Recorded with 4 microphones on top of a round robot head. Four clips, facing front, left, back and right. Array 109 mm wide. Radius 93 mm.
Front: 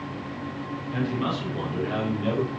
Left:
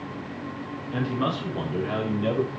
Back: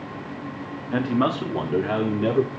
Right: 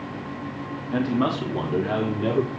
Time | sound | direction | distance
0.9 | a man speaking | 160° right | 3.5 m